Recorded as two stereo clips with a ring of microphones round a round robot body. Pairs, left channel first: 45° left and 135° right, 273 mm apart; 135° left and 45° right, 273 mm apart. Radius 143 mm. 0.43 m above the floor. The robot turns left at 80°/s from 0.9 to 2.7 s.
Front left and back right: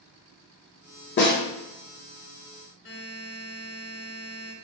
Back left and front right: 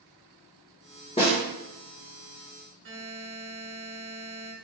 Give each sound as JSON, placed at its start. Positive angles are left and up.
{"t": 1.2, "sound": "a snare drum", "azimuth_deg": 75, "distance_m": 1.5}
{"t": 2.9, "sound": "a buzzer", "azimuth_deg": 0, "distance_m": 1.6}